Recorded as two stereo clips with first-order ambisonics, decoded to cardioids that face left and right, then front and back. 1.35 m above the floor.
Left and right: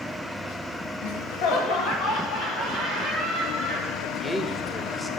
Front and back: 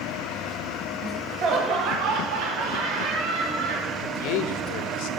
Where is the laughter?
100° left, 1.8 m; by 3.9 s 175° left, 4.5 m.